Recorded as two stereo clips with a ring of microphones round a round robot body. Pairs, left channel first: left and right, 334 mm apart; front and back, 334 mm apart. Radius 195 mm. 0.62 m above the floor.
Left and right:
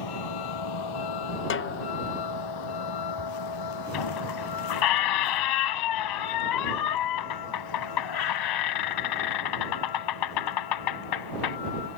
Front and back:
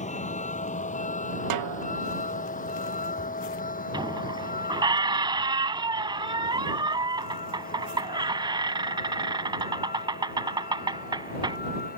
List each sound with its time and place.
0.0 s a vehicle: 70° left; by 12.0 s 65° left
1.5 s a snare drum: 145° left
3.9 s a squeak: 105° left